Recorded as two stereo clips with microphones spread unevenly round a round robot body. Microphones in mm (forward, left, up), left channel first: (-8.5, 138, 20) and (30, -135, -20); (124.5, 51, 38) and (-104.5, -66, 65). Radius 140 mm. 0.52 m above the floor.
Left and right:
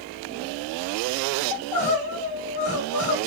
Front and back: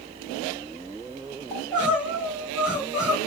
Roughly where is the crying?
Behind left.